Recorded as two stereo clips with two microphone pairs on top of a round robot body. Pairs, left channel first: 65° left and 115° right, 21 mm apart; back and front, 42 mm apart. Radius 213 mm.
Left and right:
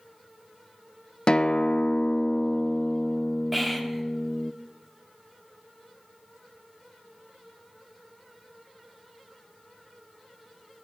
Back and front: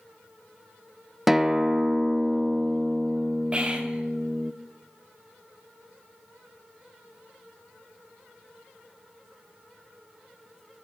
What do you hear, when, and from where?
1.3 s a guitar: 70° left, 0.5 m
3.5 s whispering: 40° right, 1.3 m